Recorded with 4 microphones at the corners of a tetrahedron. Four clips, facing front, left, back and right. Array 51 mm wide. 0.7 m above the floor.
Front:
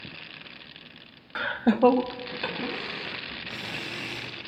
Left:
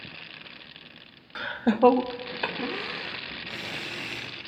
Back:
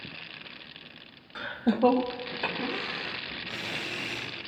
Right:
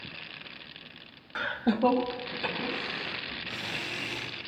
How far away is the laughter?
About 0.7 m.